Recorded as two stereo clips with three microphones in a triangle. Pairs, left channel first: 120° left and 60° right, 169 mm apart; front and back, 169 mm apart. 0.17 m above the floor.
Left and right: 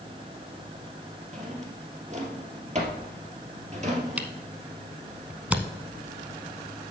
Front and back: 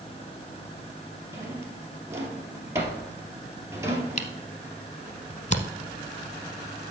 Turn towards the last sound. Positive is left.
turn(degrees=20)